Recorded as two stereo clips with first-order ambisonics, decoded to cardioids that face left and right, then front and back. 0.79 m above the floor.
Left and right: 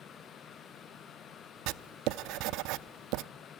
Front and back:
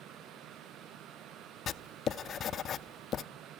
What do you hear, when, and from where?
1.7 s writing: 60° right, 0.6 m